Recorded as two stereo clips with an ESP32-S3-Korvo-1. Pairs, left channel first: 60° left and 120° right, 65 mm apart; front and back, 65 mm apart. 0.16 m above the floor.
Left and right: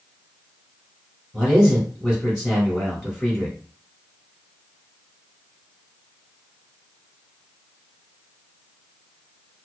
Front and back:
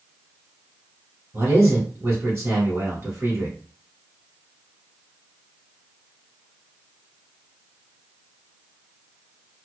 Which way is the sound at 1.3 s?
160° left.